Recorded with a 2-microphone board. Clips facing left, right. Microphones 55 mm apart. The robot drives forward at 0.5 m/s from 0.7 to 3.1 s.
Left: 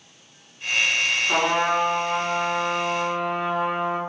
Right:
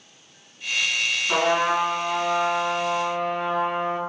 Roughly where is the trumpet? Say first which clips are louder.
Right 2 dB; centre.